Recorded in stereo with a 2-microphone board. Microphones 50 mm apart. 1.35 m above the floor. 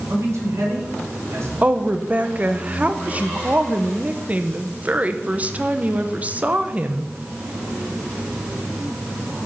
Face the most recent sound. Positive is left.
turn(degrees=-30)  # may be behind; listen again after turning